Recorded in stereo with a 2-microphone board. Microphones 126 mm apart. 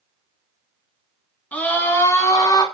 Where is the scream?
10° left (ahead or behind), 3 m; by 2.6 s 40° left (ahead or behind), 2.5 m.